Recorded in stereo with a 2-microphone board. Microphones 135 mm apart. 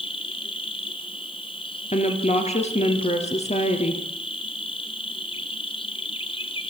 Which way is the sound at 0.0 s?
40° left (ahead or behind).